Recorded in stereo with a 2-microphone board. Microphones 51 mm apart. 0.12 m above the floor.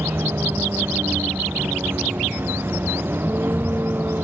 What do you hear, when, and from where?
0.0 s a vehicle: 50° right (ahead or behind); by 4.2 s 45° right (ahead or behind)